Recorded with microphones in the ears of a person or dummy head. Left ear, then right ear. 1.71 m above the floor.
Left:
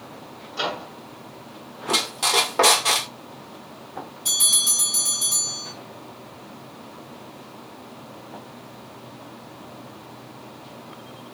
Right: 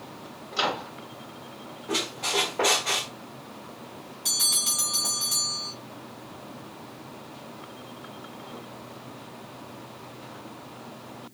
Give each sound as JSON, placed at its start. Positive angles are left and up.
{"t": 0.5, "sound": "a microwave", "side_deg": -50, "distance_m": 1.4}
{"t": 1.9, "sound": "a squeak", "side_deg": 55, "distance_m": 0.9}
{"t": 4.2, "sound": "a bell", "side_deg": -20, "distance_m": 2.0}